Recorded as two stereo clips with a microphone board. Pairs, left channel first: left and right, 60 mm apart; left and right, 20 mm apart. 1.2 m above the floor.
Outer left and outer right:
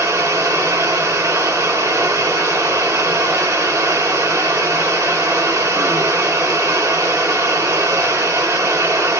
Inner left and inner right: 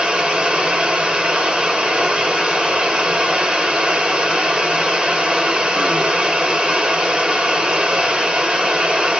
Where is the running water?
65° right (ahead or behind), 1.5 m.